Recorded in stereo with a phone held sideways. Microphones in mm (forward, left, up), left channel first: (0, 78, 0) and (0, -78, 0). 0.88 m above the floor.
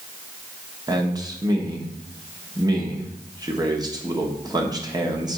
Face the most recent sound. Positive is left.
turn(degrees=-25)  # may be behind; listen again after turning